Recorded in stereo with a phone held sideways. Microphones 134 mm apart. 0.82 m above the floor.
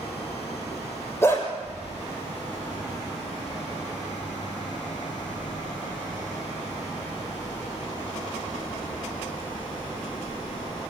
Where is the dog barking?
20° left (ahead or behind), 5.5 m.